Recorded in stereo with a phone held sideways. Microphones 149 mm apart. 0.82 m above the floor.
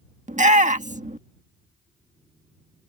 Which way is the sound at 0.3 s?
55° right (ahead or behind).